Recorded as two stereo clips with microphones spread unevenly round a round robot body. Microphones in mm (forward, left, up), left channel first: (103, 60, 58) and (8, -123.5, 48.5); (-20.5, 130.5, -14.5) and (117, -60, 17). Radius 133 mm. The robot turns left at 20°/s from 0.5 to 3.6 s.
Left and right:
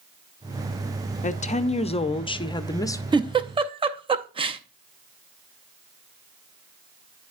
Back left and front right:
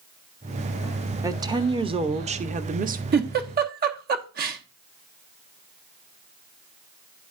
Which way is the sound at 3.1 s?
70° right.